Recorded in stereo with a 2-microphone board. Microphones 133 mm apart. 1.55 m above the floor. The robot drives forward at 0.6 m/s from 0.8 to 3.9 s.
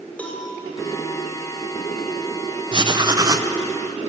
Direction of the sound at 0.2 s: 10° left (ahead or behind).